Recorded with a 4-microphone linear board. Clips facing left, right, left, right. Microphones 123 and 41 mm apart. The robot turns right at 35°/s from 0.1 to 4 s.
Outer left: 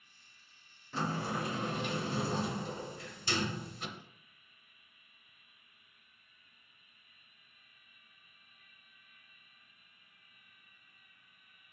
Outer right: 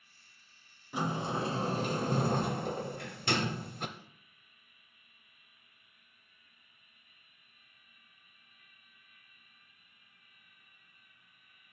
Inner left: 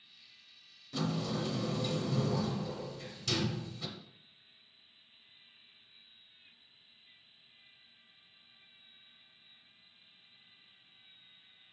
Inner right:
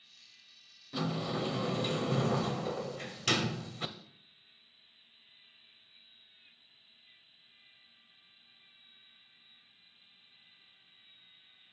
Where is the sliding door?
165° right, 0.6 m; by 3.9 s 60° right, 0.6 m.